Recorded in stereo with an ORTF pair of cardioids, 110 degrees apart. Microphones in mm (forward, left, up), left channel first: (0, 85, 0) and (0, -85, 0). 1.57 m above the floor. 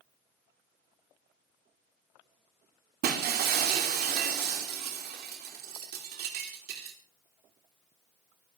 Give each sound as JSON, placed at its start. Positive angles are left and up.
{"t": 3.0, "sound": "breaking glass", "azimuth_deg": -70, "distance_m": 3.0}